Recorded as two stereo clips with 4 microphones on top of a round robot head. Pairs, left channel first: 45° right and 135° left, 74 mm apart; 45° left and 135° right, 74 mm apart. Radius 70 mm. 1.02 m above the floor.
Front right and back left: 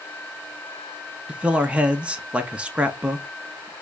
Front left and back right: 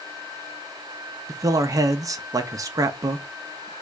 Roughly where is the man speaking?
Behind right.